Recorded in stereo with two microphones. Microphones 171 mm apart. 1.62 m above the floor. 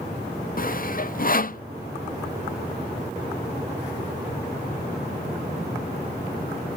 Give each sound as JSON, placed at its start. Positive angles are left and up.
{"t": 0.6, "sound": "sawing", "side_deg": 50}